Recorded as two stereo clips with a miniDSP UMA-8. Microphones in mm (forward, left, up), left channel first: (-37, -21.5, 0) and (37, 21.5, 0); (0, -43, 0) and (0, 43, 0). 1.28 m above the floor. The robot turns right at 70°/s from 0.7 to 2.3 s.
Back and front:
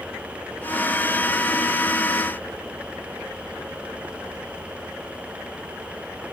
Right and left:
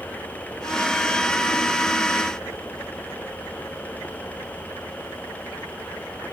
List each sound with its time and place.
Only background noise.